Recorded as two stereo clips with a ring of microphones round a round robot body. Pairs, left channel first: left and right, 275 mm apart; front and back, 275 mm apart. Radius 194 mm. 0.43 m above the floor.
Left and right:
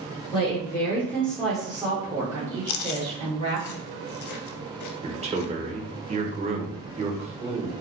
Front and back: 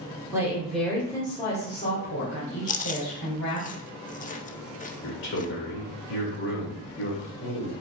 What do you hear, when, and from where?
0.3 s a woman speaking: 120° left, 1.2 m; by 3.7 s 25° right, 2 m
2.7 s chewing: 65° left, 0.6 m
5.0 s a man speaking: 30° right, 1.0 m